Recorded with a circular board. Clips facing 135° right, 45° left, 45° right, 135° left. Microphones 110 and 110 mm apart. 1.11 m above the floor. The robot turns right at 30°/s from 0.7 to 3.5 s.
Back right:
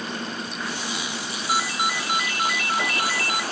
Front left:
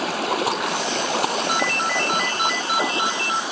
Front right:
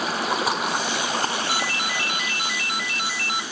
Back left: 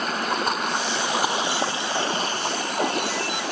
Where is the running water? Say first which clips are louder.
Front left 9 dB, front right 1 dB; 40° left; by 3.5 s 125° left.